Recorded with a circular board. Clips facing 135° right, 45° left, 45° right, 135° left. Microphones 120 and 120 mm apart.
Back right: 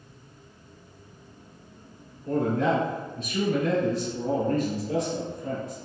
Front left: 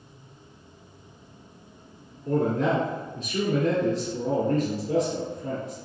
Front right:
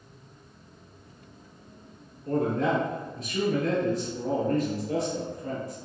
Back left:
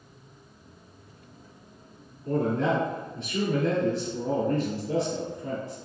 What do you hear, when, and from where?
2.2 s a man speaking: 95° left, 1.3 m